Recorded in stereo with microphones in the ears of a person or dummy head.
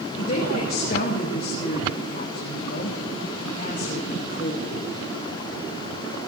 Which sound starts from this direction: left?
A woman speaking, at 0.2 s.